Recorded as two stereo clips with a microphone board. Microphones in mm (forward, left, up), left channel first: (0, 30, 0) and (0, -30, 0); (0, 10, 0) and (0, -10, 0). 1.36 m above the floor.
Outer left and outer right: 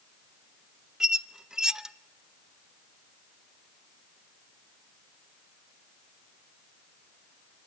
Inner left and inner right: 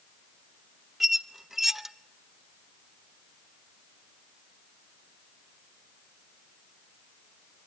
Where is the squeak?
10° right (ahead or behind), 0.5 m.